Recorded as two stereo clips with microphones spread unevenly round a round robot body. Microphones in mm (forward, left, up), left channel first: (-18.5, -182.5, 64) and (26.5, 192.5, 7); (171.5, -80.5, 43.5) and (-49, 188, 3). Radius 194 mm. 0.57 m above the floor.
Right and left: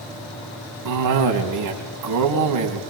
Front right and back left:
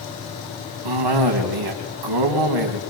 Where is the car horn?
I don't hear a car horn.